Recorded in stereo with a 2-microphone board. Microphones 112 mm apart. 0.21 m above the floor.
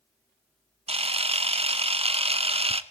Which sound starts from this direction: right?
A camera shutter, at 0.9 s.